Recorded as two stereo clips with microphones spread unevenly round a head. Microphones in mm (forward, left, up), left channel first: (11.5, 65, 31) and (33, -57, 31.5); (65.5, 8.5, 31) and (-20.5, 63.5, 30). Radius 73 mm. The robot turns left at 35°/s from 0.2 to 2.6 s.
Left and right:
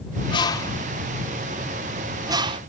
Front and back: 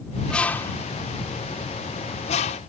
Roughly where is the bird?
Ahead left.